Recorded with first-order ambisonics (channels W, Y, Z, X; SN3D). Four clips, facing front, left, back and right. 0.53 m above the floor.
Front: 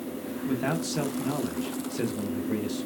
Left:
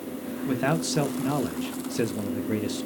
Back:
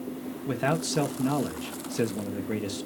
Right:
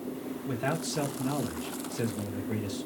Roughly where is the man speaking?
Behind left.